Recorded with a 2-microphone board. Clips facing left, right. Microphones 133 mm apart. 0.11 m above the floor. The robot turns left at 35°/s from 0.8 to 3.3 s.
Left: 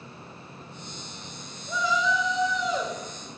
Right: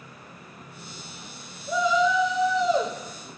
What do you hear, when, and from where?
1.7 s a shout: 35° right, 1.8 m; by 3.0 s 80° right, 1.8 m